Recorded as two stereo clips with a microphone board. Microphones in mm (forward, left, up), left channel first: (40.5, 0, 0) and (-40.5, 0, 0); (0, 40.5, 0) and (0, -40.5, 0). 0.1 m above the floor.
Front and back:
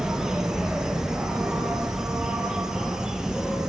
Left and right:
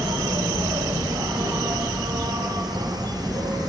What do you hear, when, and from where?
0.0 s an insect: 100° right, 3 m